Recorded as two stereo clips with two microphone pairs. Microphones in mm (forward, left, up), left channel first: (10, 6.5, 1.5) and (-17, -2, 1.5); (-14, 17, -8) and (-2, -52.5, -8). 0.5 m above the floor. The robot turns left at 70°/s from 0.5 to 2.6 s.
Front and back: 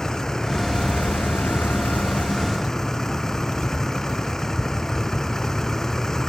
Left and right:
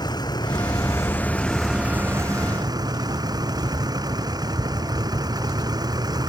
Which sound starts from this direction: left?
A vehicle, at 0.0 s.